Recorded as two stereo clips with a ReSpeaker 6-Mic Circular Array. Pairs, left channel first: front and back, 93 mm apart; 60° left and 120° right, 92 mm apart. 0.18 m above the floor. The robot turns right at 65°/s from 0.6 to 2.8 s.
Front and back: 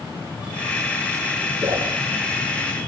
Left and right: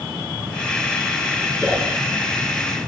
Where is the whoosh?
145° left, 6.5 m; by 1.9 s 165° left, 6.5 m.